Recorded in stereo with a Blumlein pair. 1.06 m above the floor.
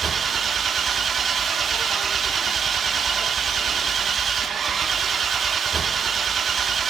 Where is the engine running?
20° right, 0.9 m.